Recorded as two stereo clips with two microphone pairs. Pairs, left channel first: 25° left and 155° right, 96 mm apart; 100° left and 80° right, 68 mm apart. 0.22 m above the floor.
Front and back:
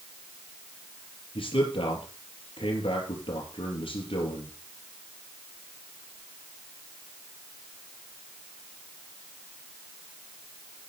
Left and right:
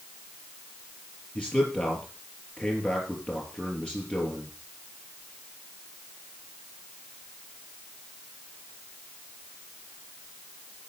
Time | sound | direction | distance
1.4 | a man speaking | 30° left | 4 m